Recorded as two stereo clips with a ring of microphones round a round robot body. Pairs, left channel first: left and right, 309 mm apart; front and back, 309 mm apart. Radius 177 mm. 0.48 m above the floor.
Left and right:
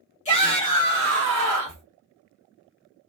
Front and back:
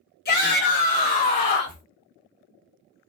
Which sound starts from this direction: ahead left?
A shout, at 0.2 s.